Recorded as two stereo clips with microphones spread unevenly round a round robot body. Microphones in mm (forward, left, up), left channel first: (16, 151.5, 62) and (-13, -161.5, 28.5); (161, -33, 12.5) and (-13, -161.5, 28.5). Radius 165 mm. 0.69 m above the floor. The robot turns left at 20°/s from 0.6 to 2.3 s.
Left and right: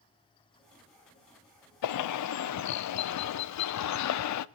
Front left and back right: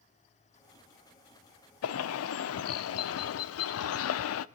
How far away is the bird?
About 0.6 m.